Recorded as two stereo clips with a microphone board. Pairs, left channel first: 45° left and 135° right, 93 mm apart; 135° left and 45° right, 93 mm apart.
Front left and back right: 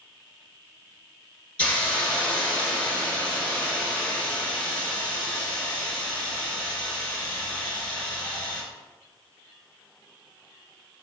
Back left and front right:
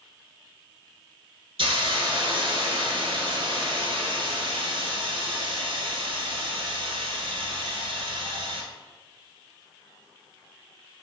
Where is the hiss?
30° right, 0.7 m.